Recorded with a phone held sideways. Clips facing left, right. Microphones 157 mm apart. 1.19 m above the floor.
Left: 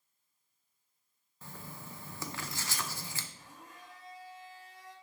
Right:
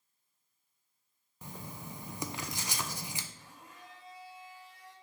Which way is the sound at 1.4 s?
20° right (ahead or behind).